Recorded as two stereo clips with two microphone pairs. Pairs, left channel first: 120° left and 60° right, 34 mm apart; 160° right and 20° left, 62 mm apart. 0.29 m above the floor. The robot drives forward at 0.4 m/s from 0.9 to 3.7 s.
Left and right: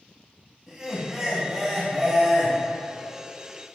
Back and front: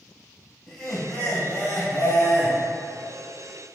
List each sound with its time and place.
0.7 s laughter: 100° right, 0.9 m; by 2.6 s 150° right, 1.2 m